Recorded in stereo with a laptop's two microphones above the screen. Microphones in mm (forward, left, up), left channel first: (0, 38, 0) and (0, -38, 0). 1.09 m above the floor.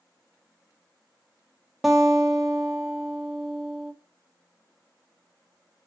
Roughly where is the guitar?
Centre.